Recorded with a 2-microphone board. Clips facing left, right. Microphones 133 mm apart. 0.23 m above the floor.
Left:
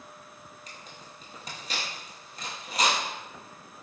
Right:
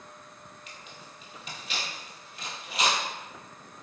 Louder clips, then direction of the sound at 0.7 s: Left 1 dB; 40° left (ahead or behind).